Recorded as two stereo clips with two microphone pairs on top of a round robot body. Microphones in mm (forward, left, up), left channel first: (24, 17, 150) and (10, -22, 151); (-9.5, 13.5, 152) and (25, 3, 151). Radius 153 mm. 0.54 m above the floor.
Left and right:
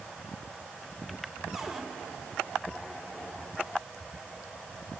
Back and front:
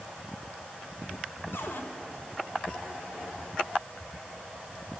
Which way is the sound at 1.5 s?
170° left.